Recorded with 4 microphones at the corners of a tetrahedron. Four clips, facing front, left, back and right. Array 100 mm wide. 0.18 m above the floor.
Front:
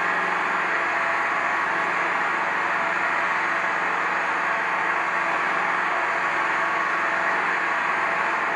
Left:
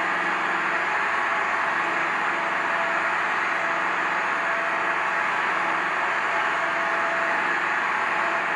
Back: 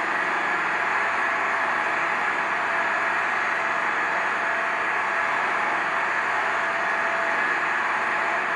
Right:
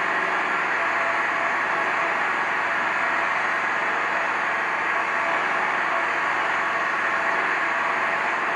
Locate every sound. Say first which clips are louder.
0.0 s an engine running: right 1 dB, front 1 dB; 60° right, 2.5 m